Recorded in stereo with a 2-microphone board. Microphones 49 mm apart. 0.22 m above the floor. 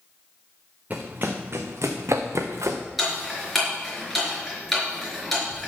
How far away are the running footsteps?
About 1.5 m.